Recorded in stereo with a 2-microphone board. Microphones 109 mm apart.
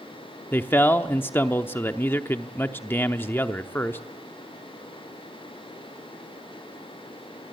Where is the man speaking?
20° left (ahead or behind), 0.8 m.